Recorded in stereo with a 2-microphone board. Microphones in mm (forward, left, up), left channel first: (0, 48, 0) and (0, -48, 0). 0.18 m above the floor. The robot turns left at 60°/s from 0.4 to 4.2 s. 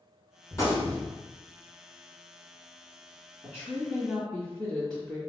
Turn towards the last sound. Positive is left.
turn(degrees=170)